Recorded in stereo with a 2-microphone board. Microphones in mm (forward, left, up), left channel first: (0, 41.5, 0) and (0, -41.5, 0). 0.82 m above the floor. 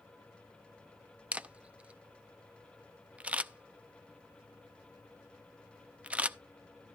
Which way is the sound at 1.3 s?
15° right (ahead or behind).